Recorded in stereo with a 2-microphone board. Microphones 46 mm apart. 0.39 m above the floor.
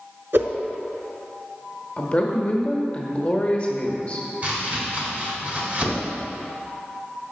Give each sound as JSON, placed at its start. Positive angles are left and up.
{"t": 0.3, "sound": "a whoosh", "side_deg": -70, "distance_m": 0.7}
{"t": 2.0, "sound": "a woman speaking", "side_deg": 30, "distance_m": 1.0}
{"t": 4.4, "sound": "chopping", "side_deg": -35, "distance_m": 1.7}